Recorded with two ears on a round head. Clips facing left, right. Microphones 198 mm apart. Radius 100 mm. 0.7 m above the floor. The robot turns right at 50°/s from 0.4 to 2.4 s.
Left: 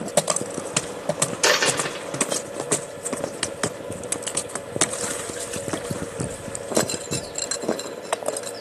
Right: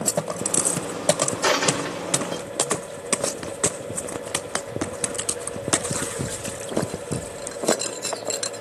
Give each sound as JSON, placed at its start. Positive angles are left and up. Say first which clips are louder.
{"t": 1.4, "sound": "a dropped coin", "louder": "left 1 dB", "side_deg": 35, "distance_m": 2.0}